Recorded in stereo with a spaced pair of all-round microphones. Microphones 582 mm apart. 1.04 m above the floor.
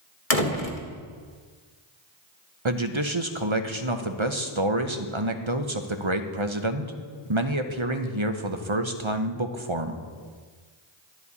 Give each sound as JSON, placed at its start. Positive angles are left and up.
{"t": 0.3, "sound": "a door slam", "side_deg": 75, "distance_m": 1.2}
{"t": 2.6, "sound": "a man speaking", "side_deg": -55, "distance_m": 0.9}